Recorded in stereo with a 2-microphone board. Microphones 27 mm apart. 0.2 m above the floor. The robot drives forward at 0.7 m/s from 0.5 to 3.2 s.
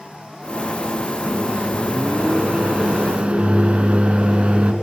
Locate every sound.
1.3 s a microwave: 55° right (ahead or behind), 2 m; by 4.7 s 45° right (ahead or behind), 2.5 m